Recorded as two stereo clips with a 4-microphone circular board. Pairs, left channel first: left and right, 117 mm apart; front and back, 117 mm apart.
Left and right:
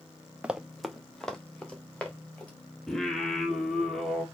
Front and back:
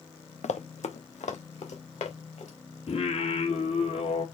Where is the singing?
5° left, 1.5 m.